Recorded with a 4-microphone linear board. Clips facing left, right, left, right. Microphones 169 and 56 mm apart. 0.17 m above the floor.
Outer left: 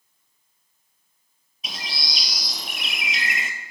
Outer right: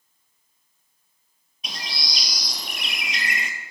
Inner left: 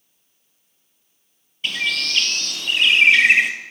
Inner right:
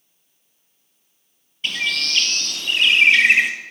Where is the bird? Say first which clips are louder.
Even, even; centre (ahead or behind), 0.9 m.